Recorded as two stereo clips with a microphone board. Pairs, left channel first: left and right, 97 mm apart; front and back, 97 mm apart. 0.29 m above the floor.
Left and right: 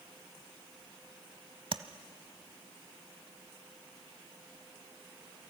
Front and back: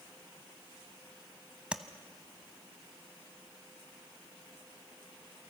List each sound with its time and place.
1.7 s tapping: 100° right, 0.8 m